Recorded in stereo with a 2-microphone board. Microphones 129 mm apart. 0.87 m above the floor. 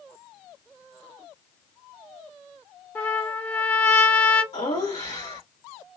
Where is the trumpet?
15° left (ahead or behind), 1.0 m.